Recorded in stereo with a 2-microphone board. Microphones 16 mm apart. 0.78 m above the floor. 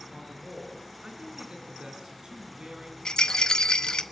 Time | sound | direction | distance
0.1 | a man speaking | 70° right (ahead or behind) | 8 m
3.0 | a rattle | 55° left (ahead or behind) | 1.2 m